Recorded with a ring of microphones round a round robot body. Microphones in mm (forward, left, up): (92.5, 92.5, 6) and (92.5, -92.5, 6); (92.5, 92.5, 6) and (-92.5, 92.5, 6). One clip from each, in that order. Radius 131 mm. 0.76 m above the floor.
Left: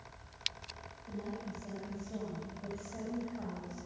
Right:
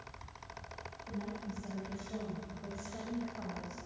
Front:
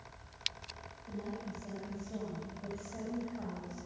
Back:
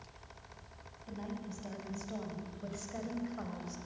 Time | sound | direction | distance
1.1 | a woman speaking | 165° right | 6 m